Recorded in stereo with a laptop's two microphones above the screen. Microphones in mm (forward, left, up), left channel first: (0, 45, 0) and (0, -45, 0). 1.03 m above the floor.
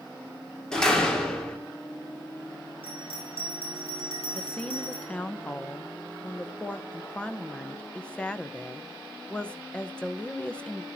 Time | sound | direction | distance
0.7 | a door slam | 10° left (ahead or behind) | 2 m
2.8 | a bell | 85° left | 7 m
4.3 | a woman speaking | 15° left (ahead or behind) | 0.7 m